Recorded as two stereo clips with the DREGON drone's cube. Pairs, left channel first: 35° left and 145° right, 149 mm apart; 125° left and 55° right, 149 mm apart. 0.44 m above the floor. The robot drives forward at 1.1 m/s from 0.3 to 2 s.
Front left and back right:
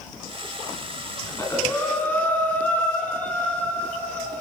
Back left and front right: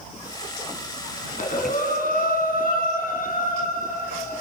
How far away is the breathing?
About 3 m.